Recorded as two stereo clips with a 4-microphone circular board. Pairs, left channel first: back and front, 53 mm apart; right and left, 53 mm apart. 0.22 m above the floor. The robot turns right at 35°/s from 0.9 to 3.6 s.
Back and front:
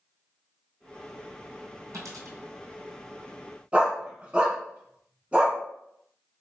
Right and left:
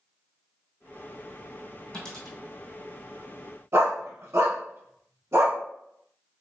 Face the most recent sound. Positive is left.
turn(degrees=65)